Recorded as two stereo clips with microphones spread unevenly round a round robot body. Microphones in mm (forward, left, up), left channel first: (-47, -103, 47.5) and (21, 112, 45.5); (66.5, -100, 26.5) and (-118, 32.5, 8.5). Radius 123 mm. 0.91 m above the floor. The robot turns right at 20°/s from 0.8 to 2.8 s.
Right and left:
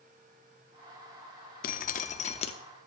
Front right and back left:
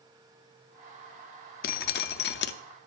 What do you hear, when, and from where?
1.6 s dripping: 65° right, 0.5 m; by 2.5 s 45° right, 0.5 m